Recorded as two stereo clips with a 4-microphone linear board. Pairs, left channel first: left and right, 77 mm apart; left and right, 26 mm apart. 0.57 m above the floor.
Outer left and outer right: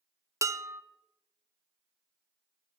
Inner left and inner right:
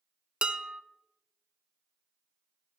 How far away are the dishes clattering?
About 0.5 m.